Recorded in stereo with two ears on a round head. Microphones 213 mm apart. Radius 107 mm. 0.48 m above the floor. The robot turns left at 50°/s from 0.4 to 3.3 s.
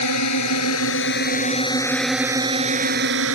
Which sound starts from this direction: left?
A drone, at 0.0 s.